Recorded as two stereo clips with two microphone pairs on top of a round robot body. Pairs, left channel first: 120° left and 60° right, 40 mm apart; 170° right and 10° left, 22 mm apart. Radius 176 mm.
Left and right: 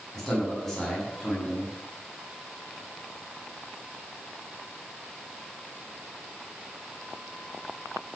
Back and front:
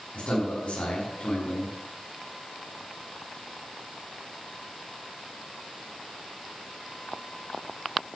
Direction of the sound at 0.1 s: 160° right.